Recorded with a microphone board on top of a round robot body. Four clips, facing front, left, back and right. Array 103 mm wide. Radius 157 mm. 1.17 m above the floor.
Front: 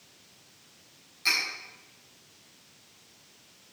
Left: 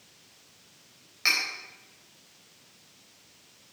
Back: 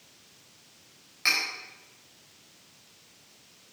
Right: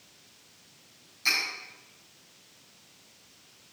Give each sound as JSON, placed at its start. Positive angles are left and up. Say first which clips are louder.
{"t": 1.2, "sound": "cutlery clinking", "louder": "left 2 dB, back 1 dB", "azimuth_deg": 125, "distance_m": 4.0}